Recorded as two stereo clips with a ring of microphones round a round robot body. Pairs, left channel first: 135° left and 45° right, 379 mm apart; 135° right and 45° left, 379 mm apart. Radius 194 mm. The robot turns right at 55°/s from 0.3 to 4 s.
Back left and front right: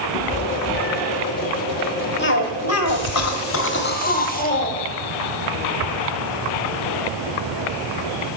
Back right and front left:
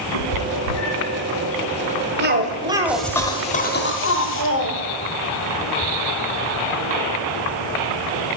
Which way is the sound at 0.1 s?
160° right.